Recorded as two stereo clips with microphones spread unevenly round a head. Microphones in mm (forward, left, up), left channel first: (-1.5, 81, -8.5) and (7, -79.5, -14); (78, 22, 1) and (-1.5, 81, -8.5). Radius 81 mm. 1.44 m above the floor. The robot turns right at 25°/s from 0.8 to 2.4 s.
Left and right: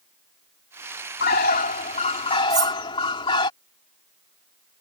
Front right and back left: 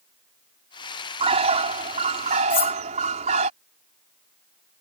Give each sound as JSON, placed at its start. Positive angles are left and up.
{"t": 1.2, "sound": "a bird", "azimuth_deg": 125}
{"t": 2.5, "sound": "cutlery clinking", "azimuth_deg": -20}